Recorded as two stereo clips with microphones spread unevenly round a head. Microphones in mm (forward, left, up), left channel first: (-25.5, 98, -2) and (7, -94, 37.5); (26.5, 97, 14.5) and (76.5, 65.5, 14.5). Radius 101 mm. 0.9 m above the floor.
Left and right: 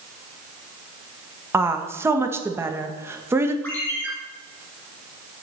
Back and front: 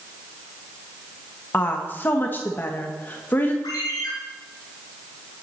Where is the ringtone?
Straight behind, 3 m.